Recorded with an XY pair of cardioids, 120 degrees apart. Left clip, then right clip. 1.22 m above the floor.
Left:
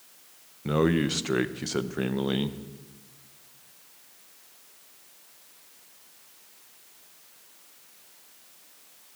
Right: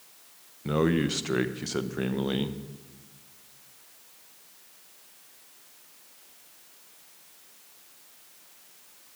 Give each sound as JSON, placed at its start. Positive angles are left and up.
{"t": 0.7, "sound": "a man speaking", "azimuth_deg": 10, "distance_m": 0.7}